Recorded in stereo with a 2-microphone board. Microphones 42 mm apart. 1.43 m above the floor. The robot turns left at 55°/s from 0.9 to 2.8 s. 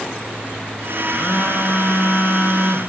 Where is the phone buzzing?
100° left, 1.4 m; by 2.9 s 10° left, 1.4 m.